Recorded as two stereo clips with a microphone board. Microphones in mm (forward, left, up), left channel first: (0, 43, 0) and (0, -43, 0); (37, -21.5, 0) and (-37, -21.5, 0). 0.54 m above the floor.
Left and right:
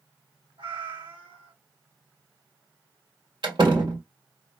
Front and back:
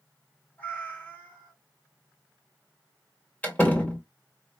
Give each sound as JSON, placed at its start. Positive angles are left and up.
{"t": 0.6, "sound": "a cat meowing", "azimuth_deg": -70, "distance_m": 1.7}
{"t": 3.4, "sound": "a door slam", "azimuth_deg": -70, "distance_m": 1.8}